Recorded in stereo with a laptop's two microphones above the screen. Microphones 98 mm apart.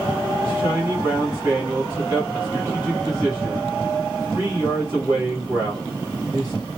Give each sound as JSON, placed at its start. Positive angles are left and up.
{"t": 0.4, "sound": "a man speaking", "side_deg": -30, "distance_m": 1.2}